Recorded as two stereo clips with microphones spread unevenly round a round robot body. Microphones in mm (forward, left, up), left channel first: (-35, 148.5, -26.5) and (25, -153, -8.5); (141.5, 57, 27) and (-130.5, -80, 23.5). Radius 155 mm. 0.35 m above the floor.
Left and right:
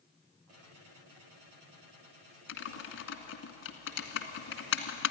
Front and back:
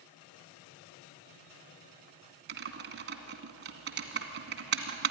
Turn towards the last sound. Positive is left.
turn(degrees=150)